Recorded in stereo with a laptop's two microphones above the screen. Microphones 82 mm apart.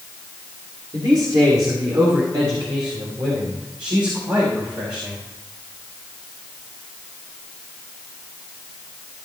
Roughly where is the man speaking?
Right.